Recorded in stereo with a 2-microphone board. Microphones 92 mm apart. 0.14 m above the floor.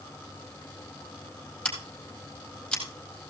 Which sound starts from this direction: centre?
Scissors, at 1.6 s.